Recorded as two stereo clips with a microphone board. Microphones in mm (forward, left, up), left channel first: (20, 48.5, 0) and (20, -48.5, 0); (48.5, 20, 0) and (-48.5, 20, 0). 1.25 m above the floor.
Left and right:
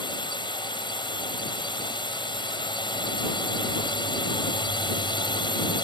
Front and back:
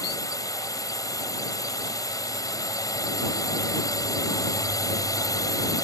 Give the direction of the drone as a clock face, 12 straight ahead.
10 o'clock.